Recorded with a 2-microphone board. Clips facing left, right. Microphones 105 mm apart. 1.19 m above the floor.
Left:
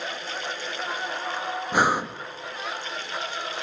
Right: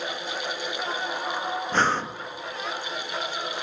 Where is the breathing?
10° left (ahead or behind), 0.6 m.